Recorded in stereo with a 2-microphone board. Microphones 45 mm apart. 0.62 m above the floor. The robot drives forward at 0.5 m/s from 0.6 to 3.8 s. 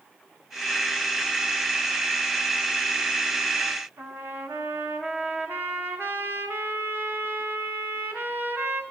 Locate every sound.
4.0 s a trumpet: 55° right (ahead or behind), 1.3 m